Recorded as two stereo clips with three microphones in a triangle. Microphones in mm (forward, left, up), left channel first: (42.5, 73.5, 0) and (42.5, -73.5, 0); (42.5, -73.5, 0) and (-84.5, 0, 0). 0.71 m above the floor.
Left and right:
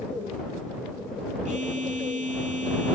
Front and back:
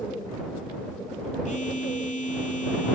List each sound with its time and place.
1.4 s a phone buzzing: 60° right